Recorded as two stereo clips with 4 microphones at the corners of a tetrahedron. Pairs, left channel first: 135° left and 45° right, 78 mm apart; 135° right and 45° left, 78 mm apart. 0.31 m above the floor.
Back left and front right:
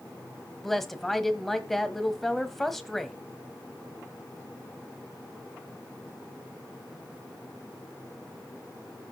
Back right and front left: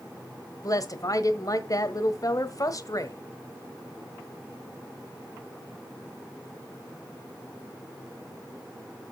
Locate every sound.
0.6 s a woman speaking: 140° right, 1.3 m